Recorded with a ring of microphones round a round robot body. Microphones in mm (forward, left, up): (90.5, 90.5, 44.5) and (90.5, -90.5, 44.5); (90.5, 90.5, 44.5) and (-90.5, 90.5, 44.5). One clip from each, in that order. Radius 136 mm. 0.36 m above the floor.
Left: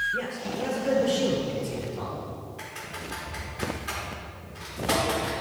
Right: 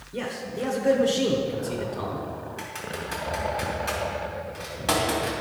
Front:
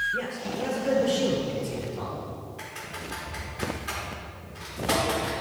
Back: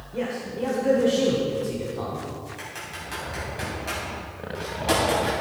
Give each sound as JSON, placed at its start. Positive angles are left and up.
{"t": 0.1, "sound": "a man speaking", "azimuth_deg": -100, "distance_m": 1.4}
{"t": 2.6, "sound": "typing on a keyboard", "azimuth_deg": -120, "distance_m": 3.0}